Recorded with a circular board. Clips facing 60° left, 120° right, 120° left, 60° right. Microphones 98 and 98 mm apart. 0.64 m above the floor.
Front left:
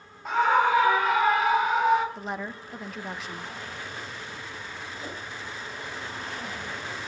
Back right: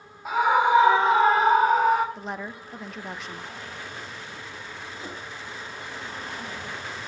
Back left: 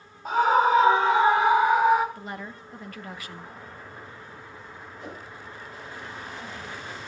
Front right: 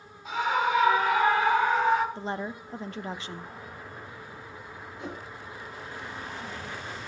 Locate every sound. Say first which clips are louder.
0.2 s a scream: back right 1 dB, back left 7 dB; 160° left, 1.7 m; by 2.0 s 160° right, 2.5 m
2.1 s a woman speaking: even, front right 4 dB; 30° right, 0.6 m
5.0 s a whoosh: even, front right 2 dB; 55° right, 3 m